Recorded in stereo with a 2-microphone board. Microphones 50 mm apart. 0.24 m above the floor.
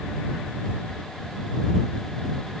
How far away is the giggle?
I don't hear a giggle.